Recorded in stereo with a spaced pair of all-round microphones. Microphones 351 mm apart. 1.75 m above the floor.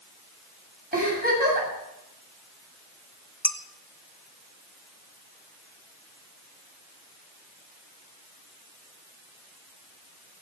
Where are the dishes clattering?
5° left (ahead or behind), 1.0 m.